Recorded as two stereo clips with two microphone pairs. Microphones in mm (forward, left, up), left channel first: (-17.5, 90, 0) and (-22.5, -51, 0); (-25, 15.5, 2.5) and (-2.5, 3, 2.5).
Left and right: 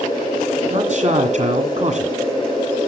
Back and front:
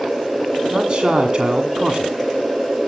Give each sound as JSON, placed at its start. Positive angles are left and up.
{"t": 0.7, "sound": "a man speaking", "azimuth_deg": -80, "distance_m": 1.7}